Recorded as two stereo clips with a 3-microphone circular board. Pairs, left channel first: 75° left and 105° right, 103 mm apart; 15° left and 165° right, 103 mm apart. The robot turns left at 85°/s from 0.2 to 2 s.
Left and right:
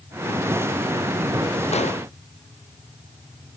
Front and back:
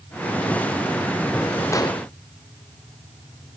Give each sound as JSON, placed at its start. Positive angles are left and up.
{"t": 1.7, "sound": "an explosion", "azimuth_deg": 80, "distance_m": 0.8}